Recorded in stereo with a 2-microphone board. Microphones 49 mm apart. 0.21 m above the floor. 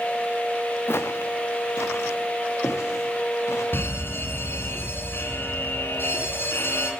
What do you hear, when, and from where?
0.9 s footsteps: 55° left (ahead or behind), 1.0 m; by 3.6 s 75° left (ahead or behind), 3 m
3.7 s an alarm: 50° left (ahead or behind), 1.3 m